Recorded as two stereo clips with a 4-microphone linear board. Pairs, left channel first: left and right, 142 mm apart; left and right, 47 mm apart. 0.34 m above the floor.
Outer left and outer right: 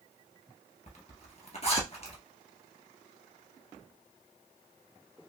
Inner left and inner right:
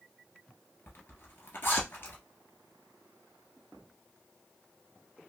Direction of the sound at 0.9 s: 50° left (ahead or behind).